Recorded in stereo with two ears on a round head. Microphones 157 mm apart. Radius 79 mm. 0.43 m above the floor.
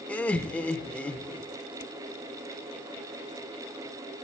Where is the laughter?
5° left (ahead or behind), 0.8 m.